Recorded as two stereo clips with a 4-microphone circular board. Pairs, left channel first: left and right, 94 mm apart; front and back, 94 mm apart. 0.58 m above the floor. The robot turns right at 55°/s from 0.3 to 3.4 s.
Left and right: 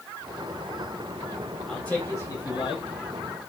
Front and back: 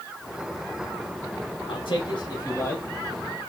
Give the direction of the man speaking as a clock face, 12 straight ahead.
12 o'clock.